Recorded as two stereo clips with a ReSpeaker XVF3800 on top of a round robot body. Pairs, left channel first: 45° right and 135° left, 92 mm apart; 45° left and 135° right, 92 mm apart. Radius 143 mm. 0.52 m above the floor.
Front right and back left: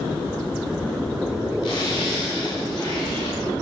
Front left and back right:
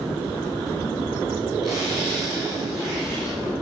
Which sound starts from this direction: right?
A zipper, at 1.6 s.